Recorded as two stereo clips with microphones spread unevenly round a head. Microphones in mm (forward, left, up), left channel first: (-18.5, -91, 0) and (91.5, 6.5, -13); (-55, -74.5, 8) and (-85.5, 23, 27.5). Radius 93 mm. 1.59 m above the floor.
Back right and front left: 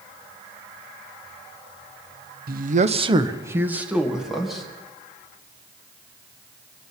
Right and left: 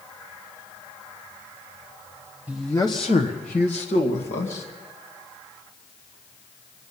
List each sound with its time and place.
2.5 s a man speaking: 30° left, 0.8 m; by 4.7 s 50° right, 2.5 m